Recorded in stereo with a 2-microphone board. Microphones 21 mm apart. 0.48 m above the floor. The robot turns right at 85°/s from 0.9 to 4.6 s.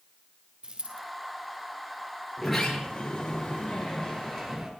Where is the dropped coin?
50° right (ahead or behind), 4 m; by 1.0 s 55° right (ahead or behind), 4 m.